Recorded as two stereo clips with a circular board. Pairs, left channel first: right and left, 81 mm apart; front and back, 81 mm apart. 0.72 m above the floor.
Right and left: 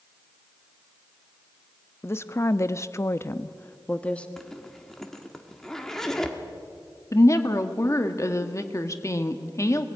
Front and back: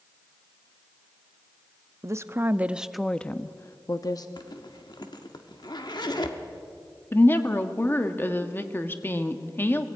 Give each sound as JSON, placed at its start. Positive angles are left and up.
{"t": 2.0, "sound": "a woman speaking", "azimuth_deg": -140, "distance_m": 0.8}
{"t": 4.4, "sound": "a zipper", "azimuth_deg": -5, "distance_m": 1.5}
{"t": 7.1, "sound": "a woman speaking", "azimuth_deg": -55, "distance_m": 1.3}